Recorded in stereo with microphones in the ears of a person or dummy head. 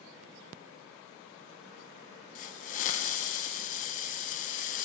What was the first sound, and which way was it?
A hiss, 40° left (ahead or behind).